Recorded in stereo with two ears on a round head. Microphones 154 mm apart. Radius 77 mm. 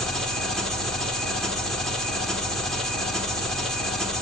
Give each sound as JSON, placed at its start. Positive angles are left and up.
{"t": 0.0, "sound": "an engine running", "side_deg": 5, "distance_m": 1.6}